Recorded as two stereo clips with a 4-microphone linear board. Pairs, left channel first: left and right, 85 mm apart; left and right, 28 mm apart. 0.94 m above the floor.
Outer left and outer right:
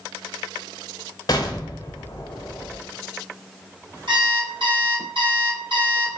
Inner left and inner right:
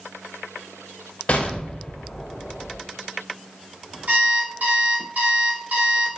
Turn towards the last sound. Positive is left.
turn(degrees=-70)  # may be behind; listen again after turning